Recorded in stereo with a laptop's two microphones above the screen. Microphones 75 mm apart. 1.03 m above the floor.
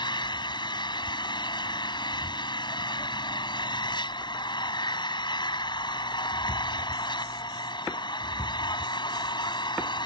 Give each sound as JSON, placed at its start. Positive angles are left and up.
{"t": 0.0, "sound": "an engine running", "side_deg": 75}